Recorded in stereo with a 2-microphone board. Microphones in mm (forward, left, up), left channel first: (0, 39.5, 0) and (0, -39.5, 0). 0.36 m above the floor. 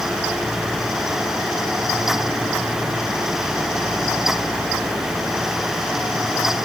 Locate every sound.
Only background noise.